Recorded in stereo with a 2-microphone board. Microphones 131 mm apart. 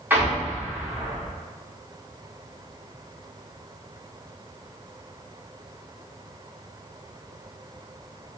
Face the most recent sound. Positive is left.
turn(degrees=-15)  # may be behind; listen again after turning